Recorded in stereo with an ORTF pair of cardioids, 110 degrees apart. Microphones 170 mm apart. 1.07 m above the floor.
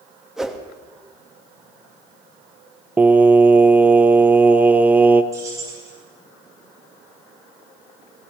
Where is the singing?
10° right, 0.6 m.